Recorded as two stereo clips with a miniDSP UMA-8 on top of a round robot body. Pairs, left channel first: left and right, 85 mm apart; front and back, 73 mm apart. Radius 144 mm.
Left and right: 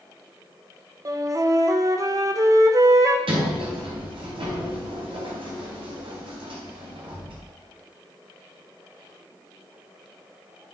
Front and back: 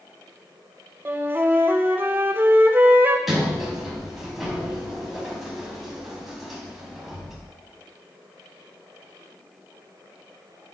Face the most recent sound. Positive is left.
turn(degrees=-90)